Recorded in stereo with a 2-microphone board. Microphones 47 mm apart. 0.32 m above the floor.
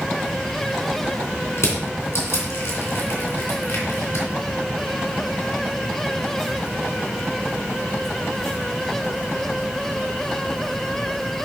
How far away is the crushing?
About 3 m.